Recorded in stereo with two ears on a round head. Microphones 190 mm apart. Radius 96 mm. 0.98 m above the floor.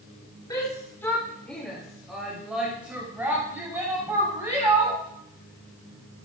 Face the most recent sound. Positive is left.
turn(degrees=-15)  # may be behind; listen again after turning